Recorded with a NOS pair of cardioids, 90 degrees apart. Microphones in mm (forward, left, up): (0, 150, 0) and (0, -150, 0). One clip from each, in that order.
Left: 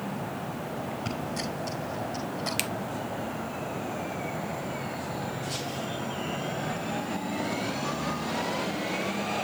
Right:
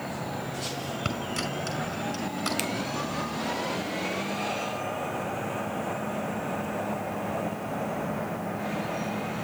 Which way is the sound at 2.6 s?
15° left.